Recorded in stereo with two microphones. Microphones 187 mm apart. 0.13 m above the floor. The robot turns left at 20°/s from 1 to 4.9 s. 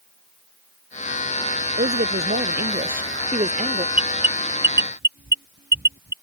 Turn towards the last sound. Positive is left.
turn(degrees=-65)  # may be behind; listen again after turning